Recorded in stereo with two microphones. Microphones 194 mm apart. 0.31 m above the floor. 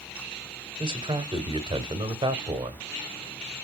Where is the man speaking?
25° right (ahead or behind), 0.9 m.